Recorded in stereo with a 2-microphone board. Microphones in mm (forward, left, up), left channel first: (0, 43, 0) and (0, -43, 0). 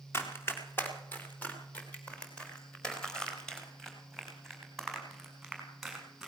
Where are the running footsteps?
30° left (ahead or behind), 3.5 m; by 6.3 s centre (ahead or behind), 7 m.